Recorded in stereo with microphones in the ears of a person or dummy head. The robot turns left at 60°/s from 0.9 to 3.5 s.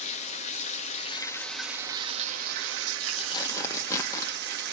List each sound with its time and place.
0.0 s running water: 40° left, 1.8 m; by 4.7 s 120° right, 1.8 m
3.2 s tearing paper: 30° left (ahead or behind), 1.1 m; by 4.3 s 15° left (ahead or behind), 1.1 m